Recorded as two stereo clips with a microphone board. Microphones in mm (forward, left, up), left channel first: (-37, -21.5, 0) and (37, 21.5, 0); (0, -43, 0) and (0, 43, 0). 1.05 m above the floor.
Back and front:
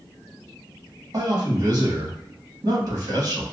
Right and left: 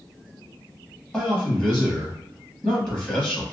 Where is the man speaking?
10° right, 1.9 m.